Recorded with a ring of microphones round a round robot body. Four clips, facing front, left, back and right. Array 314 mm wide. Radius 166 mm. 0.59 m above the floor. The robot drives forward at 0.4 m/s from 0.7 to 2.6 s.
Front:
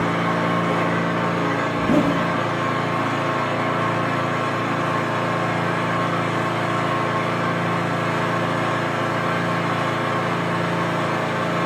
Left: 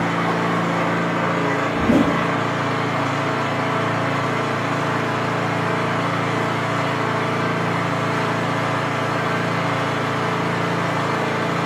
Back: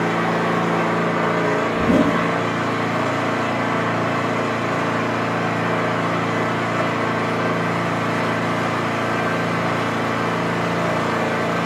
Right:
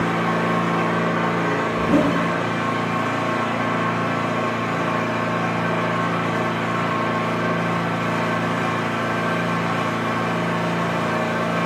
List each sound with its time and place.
0.0 s an engine running: 175° left, 1.4 m
1.7 s a zipper: 125° left, 0.8 m; by 2.1 s 135° left, 0.9 m